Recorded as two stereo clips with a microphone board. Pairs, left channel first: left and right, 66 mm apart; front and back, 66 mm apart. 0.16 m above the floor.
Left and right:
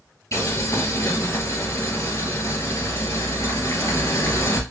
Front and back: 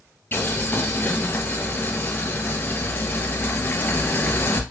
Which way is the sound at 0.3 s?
55° left.